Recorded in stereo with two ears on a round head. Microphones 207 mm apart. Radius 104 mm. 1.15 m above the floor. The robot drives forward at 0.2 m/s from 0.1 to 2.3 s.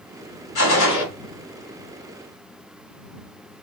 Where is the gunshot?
70° left (ahead or behind), 1.9 m; by 1.1 s 65° left (ahead or behind), 1.9 m.